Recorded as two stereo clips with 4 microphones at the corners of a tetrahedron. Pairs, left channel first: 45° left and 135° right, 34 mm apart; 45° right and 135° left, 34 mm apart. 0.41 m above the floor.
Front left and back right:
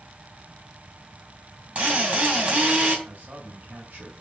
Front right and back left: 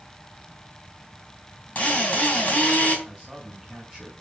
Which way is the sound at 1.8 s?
90° right.